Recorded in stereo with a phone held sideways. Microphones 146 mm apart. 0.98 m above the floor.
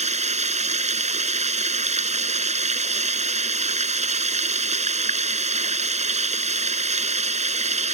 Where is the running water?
50° right (ahead or behind).